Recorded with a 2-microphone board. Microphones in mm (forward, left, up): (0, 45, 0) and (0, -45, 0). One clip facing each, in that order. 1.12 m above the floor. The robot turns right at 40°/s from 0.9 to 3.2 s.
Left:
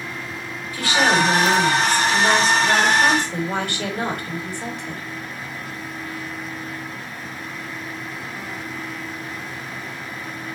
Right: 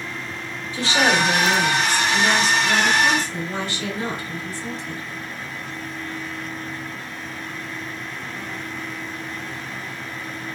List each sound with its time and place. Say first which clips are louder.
0.7 s a woman speaking: left 1 dB; 25° right, 4 m; by 5.0 s 65° left, 4 m